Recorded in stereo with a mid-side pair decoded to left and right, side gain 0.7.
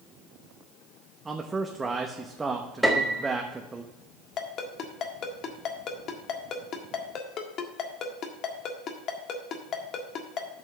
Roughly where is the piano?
Ahead.